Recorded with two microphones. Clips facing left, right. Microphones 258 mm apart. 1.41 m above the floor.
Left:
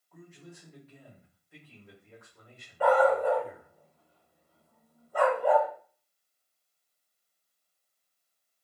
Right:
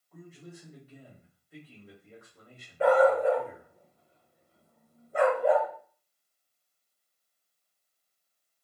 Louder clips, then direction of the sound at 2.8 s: Right 2 dB; 25° right (ahead or behind).